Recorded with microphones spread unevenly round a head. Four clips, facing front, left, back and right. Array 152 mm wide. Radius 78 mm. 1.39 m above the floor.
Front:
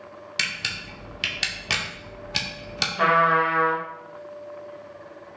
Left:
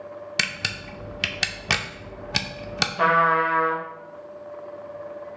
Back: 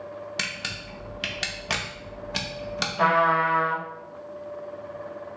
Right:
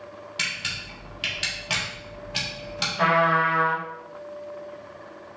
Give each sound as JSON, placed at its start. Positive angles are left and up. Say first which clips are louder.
{"t": 0.4, "sound": "a camera shutter", "louder": "left 3 dB, front 1 dB", "azimuth_deg": 75, "distance_m": 0.6}
{"t": 3.0, "sound": "a trumpet", "louder": "left 1 dB, front 1 dB", "azimuth_deg": 75, "distance_m": 1.2}